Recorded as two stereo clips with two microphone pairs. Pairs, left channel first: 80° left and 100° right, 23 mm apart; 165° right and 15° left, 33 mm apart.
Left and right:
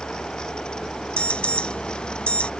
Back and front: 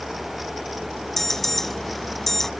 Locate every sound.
1.2 s an alarm: 115° left